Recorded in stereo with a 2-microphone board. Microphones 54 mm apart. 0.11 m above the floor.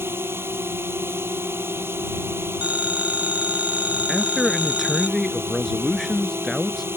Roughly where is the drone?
Right.